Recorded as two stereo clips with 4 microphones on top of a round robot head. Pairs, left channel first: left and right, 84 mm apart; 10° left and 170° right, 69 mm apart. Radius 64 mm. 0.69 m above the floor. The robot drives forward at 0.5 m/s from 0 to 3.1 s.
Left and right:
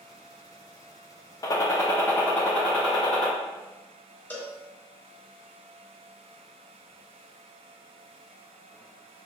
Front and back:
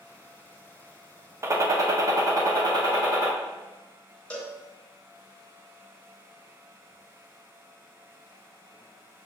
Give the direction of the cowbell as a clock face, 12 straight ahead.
10 o'clock.